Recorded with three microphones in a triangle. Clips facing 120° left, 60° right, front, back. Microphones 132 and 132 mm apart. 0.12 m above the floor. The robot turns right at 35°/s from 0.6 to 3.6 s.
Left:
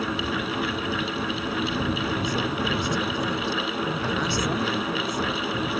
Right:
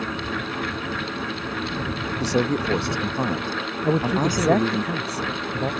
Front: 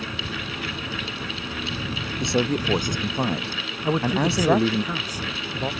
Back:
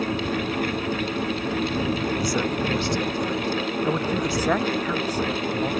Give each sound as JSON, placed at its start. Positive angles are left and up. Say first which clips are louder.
{"t": 2.2, "sound": "a man speaking", "louder": "right 4 dB, front 1 dB", "azimuth_deg": -65}
{"t": 3.8, "sound": "a man speaking", "louder": "right 6 dB, front 6 dB", "azimuth_deg": -75}